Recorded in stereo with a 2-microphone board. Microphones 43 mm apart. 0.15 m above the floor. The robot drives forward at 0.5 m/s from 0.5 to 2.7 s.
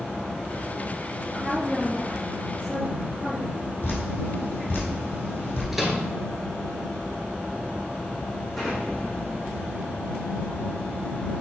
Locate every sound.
1.3 s a woman speaking: 5° right (ahead or behind), 2.5 m
3.8 s dripping: 50° left (ahead or behind), 3.5 m
5.7 s a microwave: 5° right (ahead or behind), 1.6 m
8.5 s an explosion: 5° left (ahead or behind), 4 m